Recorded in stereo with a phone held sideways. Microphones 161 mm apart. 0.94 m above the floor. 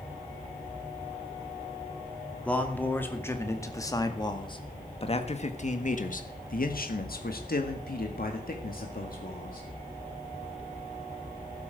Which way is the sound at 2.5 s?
10° left (ahead or behind).